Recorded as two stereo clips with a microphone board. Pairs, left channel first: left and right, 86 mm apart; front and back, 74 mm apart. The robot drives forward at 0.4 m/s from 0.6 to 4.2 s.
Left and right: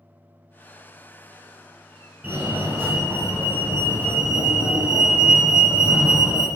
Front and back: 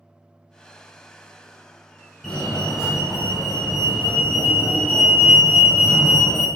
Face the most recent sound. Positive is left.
turn(degrees=-130)